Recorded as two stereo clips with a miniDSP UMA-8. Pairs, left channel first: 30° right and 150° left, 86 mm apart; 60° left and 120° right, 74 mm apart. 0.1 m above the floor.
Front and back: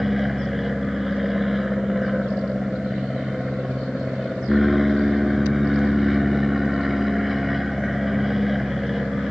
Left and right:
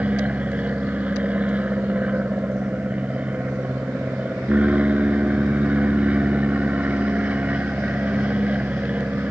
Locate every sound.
0.0 s an aircraft: 125° right